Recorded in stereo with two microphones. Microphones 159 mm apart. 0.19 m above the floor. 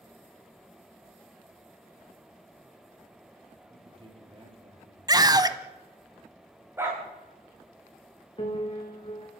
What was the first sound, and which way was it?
A man speaking, 35° right (ahead or behind).